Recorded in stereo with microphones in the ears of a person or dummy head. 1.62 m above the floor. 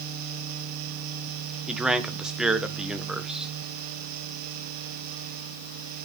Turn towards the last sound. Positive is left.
turn(degrees=-10)  # may be behind; listen again after turning